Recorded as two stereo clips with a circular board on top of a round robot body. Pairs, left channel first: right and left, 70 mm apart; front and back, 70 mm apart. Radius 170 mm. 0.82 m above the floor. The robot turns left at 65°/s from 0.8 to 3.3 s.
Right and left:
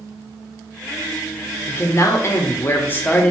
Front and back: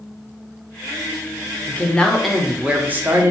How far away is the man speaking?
About 1.0 m.